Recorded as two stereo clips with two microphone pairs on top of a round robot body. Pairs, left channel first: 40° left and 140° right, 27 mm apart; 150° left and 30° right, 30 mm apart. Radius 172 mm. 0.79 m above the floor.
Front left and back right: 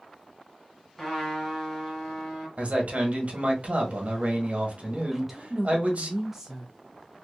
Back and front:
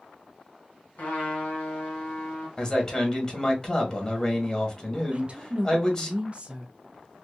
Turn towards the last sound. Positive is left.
turn(degrees=-65)